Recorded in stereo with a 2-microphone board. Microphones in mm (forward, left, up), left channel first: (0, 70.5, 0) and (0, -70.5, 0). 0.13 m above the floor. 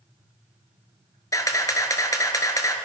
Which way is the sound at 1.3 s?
25° left (ahead or behind).